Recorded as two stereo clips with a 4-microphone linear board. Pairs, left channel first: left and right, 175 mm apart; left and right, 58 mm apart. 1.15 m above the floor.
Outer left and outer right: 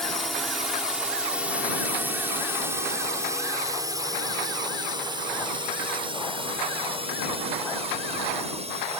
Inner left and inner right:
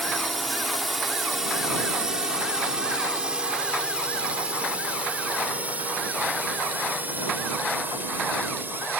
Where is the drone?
Centre (ahead or behind); by 9.0 s 40° right (ahead or behind).